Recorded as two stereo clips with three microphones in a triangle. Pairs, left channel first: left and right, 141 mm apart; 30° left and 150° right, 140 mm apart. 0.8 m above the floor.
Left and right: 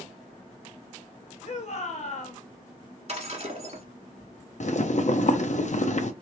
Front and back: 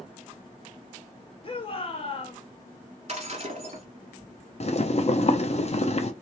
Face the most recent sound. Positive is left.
turn(degrees=65)